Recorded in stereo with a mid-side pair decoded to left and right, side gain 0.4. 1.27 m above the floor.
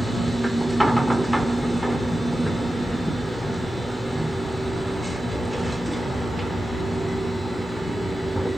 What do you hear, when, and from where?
0.0 s a machine running: straight ahead, 2.5 m